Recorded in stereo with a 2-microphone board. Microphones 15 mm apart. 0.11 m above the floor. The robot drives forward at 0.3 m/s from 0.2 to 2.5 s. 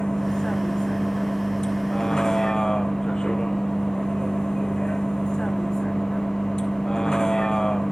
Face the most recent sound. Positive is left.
turn(degrees=65)  # may be behind; listen again after turning